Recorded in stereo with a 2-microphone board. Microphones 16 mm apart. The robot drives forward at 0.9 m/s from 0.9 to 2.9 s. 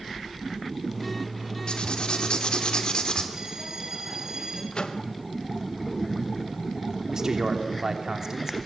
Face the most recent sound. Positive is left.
turn(degrees=-35)  # may be behind; listen again after turning